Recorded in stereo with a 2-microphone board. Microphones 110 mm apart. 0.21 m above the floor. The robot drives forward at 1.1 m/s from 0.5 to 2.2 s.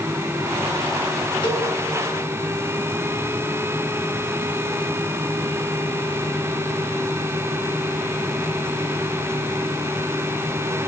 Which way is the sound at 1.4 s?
50° left (ahead or behind).